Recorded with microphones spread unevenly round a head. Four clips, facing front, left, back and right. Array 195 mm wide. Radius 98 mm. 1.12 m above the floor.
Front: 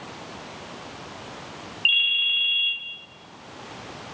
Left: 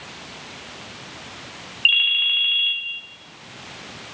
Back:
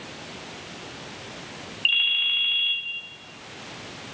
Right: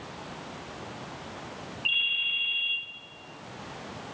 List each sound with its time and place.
1.9 s a ringtone: 115° left, 2.5 m